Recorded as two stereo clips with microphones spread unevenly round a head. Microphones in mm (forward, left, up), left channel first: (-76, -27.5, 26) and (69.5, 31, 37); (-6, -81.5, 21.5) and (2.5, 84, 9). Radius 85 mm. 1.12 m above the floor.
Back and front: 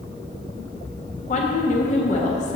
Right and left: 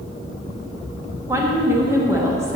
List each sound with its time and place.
1.3 s a woman speaking: 160° left, 1.4 m